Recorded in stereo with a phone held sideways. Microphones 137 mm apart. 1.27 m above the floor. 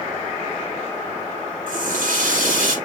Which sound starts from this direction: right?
A running tap, at 1.7 s.